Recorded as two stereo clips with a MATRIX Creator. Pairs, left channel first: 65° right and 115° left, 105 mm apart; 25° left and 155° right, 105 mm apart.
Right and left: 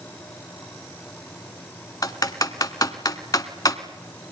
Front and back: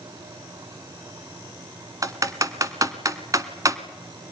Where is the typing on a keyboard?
110° right, 1.2 m.